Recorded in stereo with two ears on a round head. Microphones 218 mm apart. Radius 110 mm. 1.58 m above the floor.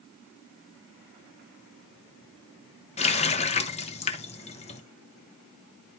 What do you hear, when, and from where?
3.0 s a running tap: 25° left (ahead or behind), 0.8 m